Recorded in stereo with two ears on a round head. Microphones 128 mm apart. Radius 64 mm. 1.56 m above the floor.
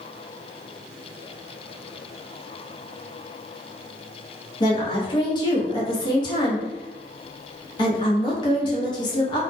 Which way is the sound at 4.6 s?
30° left (ahead or behind).